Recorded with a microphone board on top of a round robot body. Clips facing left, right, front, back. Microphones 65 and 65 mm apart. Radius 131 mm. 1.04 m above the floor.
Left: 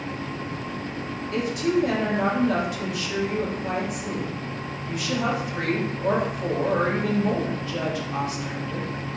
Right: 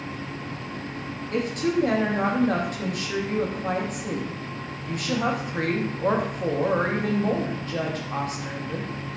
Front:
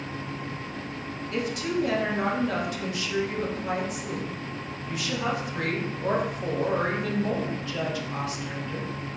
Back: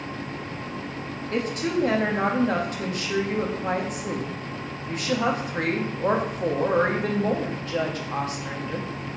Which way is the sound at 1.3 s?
135° right.